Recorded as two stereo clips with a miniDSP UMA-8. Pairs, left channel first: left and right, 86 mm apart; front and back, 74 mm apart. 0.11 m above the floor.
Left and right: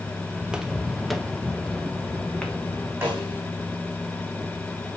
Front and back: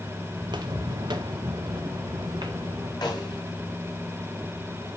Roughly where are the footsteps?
Behind.